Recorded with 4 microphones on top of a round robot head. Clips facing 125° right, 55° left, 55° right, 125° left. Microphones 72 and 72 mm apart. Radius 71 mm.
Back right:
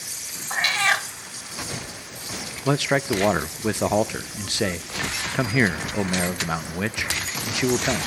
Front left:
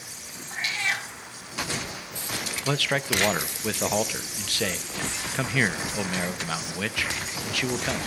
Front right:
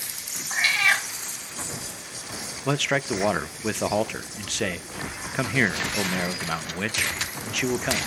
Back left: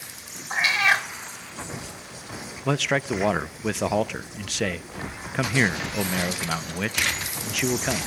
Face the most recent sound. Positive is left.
turn(degrees=-150)